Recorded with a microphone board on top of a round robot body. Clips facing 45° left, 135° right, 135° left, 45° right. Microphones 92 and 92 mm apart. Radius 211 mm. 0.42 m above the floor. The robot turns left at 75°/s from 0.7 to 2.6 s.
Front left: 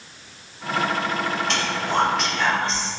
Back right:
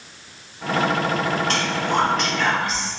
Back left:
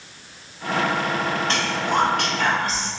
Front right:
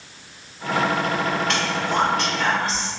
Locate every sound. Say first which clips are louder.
1.5 s whispering: back right 2 dB, even; 175° right, 1.4 m; by 2.9 s 105° left, 1.4 m